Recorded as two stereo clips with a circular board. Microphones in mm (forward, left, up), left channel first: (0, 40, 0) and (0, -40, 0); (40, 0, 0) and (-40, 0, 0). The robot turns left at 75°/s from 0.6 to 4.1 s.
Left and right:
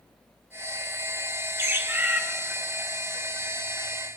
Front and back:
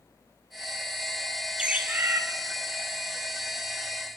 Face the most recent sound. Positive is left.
turn(degrees=60)